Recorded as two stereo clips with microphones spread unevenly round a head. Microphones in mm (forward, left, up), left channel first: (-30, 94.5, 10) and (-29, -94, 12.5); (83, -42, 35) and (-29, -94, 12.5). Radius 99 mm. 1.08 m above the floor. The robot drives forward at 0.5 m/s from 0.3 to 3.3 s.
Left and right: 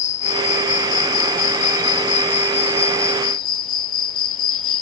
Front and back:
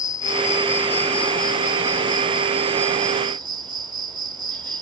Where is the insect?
55° left; by 4.8 s 135° left.